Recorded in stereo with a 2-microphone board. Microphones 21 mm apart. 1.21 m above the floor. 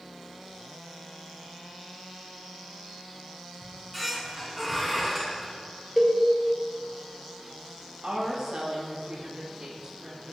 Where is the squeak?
5° left (ahead or behind), 2 m.